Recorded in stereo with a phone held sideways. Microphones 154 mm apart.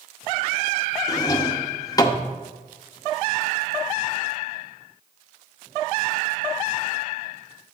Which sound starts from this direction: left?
A drawer, at 1.1 s.